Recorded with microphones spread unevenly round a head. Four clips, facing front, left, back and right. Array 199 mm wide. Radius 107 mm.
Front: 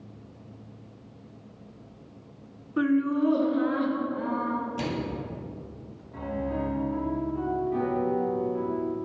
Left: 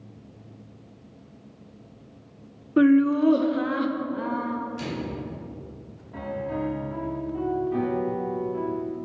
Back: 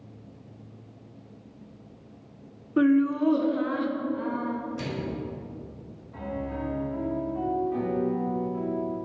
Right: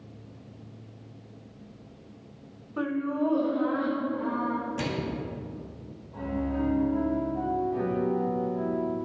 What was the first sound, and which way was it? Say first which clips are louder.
Laughter: left 11 dB, back 2 dB; 120° left.